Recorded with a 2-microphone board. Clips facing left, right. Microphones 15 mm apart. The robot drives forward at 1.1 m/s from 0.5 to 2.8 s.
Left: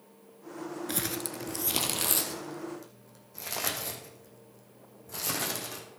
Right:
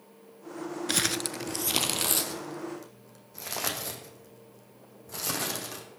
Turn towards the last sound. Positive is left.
turn(degrees=-10)  # may be behind; listen again after turning